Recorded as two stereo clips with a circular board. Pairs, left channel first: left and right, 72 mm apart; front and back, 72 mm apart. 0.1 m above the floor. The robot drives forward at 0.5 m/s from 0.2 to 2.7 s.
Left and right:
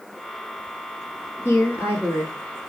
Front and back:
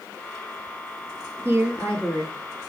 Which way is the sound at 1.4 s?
135° left.